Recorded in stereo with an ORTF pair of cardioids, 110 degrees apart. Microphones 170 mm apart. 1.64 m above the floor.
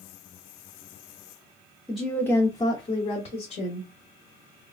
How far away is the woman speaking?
About 0.9 m.